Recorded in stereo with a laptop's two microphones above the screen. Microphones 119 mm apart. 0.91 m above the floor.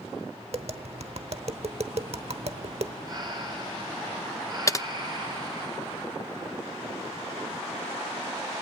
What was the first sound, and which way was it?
Tapping, 60° right (ahead or behind).